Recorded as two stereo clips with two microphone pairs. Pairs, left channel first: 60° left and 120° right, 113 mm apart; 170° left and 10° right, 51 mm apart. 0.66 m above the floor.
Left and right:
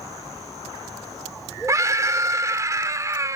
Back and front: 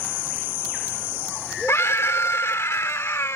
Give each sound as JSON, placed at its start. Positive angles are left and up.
{"t": 1.7, "sound": "a scream", "azimuth_deg": 180}